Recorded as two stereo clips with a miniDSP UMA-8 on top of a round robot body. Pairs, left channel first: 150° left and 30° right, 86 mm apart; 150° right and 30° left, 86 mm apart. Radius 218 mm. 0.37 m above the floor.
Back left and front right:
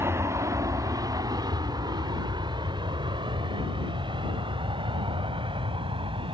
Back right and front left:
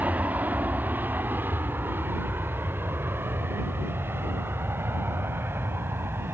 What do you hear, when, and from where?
0.0 s an aircraft: 25° right; by 6.3 s 35° right